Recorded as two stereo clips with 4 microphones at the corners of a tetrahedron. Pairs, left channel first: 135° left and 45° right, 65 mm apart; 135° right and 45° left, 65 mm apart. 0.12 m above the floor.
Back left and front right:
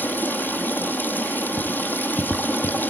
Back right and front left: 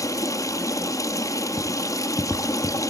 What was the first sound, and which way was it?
Running water, 165° right.